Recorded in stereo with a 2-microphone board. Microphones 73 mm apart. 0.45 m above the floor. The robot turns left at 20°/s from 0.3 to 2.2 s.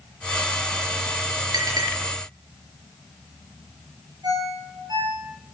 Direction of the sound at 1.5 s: 65° right (ahead or behind).